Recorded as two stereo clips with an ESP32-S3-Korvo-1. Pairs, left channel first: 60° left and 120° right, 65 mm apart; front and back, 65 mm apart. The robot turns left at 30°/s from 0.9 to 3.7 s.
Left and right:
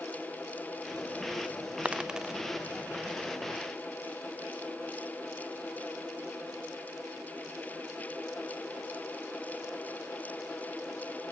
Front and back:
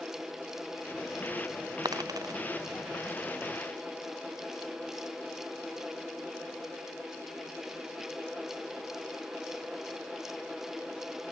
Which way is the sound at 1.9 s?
170° left.